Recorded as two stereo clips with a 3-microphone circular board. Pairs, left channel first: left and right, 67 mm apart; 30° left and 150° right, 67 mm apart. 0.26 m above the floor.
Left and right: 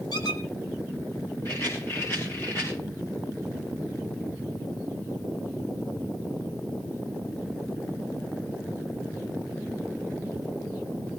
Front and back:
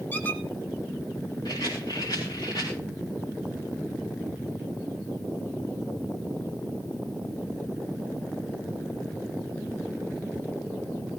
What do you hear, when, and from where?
0.1 s a squeak: 95° left, 1.4 m
1.4 s a rattle: 35° left, 6.5 m